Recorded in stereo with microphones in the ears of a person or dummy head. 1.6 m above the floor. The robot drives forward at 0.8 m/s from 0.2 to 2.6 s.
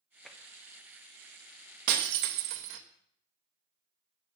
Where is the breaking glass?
55° right (ahead or behind), 1.4 m; by 2.8 s 60° right (ahead or behind), 1.3 m.